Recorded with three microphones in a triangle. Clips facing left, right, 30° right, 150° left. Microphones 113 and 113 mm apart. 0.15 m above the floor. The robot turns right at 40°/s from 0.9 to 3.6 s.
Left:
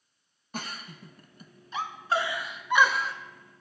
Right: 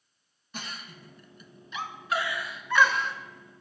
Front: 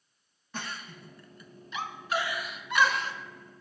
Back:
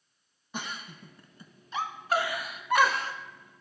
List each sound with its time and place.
0.5 s a giggle: 85° left, 0.5 m; by 3.1 s 175° left, 0.5 m